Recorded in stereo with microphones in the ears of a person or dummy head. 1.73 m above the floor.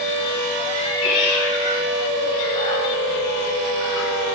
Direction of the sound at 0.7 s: 25° left (ahead or behind).